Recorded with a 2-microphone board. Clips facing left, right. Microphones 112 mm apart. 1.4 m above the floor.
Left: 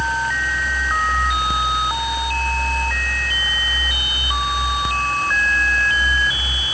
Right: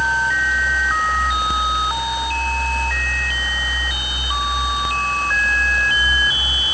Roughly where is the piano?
No piano in this recording.